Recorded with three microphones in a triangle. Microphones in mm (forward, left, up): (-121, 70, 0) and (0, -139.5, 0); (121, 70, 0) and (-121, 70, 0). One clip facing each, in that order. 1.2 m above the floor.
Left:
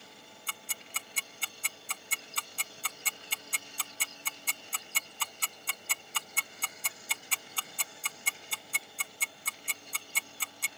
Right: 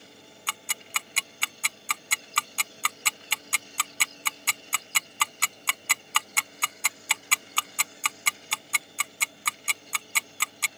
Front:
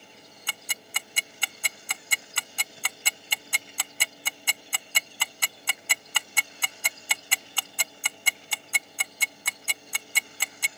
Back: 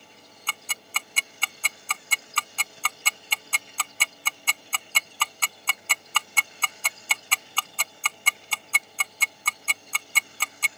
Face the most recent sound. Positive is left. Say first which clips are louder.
# right 9 dB, back 3 dB
turn(degrees=-75)